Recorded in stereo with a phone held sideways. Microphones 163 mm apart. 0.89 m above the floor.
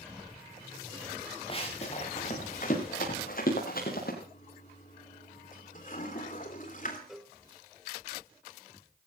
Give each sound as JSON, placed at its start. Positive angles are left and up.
{"t": 1.5, "sound": "running footsteps", "side_deg": 35, "distance_m": 5.5}
{"t": 4.2, "sound": "a toilet flushing", "side_deg": 50, "distance_m": 3.0}
{"t": 7.1, "sound": "a cowbell", "side_deg": 0, "distance_m": 1.5}